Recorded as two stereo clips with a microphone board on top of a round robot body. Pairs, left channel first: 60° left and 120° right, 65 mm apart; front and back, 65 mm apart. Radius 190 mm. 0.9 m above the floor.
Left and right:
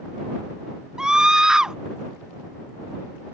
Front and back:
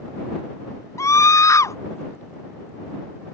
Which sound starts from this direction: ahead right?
A scream, at 1.0 s.